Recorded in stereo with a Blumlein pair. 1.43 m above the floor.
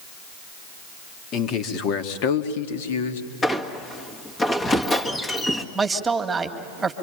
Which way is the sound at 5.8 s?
10° right.